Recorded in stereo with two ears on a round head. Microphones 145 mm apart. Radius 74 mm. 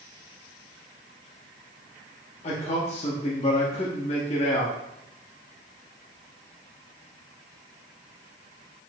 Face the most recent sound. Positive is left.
turn(degrees=40)  # may be behind; listen again after turning